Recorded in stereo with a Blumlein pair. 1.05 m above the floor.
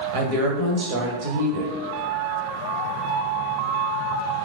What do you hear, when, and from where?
0.1 s a woman speaking: 45° right, 0.7 m